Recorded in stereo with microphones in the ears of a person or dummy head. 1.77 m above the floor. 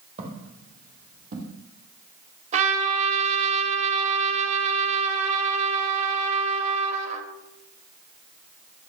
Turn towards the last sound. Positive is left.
turn(degrees=-40)  # may be behind; listen again after turning